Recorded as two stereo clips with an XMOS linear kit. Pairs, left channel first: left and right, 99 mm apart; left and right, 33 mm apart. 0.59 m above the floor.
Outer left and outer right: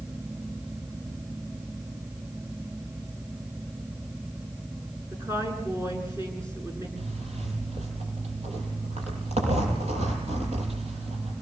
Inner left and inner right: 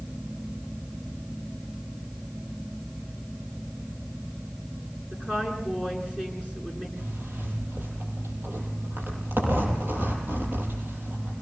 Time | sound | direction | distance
5.1 | a woman speaking | 25° right (ahead or behind) | 9 m
7.0 | a zipper | 85° right | 7 m